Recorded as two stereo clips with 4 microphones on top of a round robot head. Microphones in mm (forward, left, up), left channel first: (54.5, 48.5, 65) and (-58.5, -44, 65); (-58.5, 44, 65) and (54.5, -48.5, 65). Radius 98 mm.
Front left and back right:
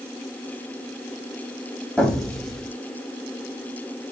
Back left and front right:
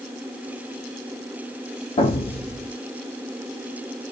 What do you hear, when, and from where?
2.0 s an explosion: 125° left, 1.2 m